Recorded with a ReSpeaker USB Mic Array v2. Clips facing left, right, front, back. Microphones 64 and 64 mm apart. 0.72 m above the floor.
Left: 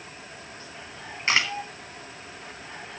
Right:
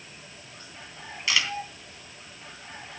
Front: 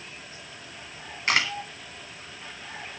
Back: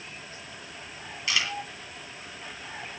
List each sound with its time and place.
1.3 s a camera shutter: 40° left, 1.9 m